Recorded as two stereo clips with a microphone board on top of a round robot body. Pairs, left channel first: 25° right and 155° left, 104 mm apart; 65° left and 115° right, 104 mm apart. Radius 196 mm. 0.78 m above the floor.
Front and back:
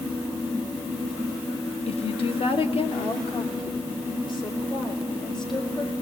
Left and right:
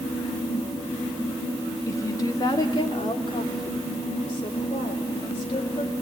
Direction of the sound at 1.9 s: 5° left.